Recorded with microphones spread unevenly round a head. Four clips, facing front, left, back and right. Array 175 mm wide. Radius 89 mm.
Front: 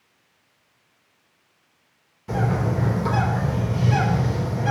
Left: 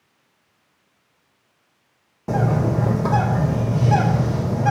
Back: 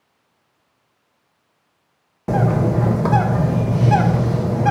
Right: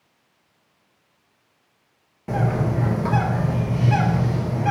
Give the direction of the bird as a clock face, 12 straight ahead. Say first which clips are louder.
Left 3 dB, back 6 dB; 7 o'clock.